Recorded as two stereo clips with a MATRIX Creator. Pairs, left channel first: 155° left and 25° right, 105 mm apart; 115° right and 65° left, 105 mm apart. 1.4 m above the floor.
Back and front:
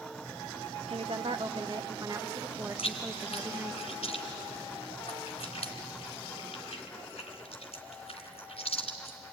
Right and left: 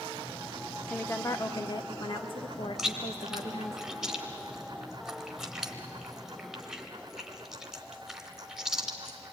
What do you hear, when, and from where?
0.9 s a woman speaking: 40° right, 1.1 m; by 3.8 s 90° right, 3 m
2.8 s chewing: 155° left, 3 m